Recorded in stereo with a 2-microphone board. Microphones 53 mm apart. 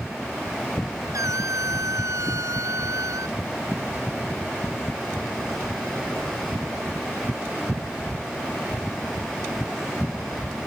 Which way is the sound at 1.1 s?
85° right.